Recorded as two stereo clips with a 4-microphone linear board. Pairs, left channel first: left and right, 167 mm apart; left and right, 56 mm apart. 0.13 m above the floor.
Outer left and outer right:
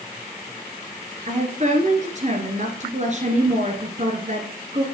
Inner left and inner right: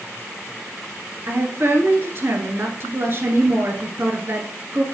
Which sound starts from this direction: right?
A woman speaking, at 1.3 s.